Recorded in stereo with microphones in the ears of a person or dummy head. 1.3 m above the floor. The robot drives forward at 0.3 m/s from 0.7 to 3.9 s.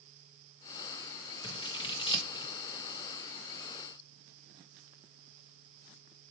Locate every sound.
1.4 s scissors: 20° left (ahead or behind), 1.4 m